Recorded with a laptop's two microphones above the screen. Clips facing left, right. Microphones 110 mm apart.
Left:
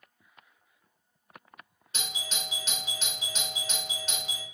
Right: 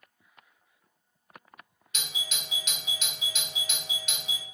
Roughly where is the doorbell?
Left.